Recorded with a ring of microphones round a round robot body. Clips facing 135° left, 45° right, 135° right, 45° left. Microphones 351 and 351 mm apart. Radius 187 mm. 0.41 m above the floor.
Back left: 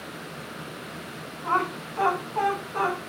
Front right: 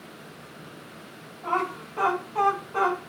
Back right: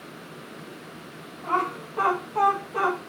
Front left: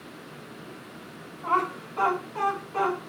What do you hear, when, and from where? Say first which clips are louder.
1.4 s laughter: even, back right 1 dB; 5° right, 3 m; by 3.0 s 25° right, 2.5 m